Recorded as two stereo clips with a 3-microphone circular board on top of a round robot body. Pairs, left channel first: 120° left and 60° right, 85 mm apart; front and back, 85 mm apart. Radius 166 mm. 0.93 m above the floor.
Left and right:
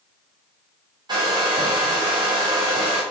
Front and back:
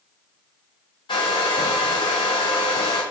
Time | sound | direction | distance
1.1 | a hair dryer | 25° right | 0.5 m